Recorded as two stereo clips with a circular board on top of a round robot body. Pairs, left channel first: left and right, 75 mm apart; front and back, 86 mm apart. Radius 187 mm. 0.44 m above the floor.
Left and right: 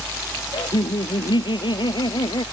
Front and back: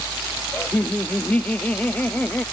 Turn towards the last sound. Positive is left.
turn(degrees=75)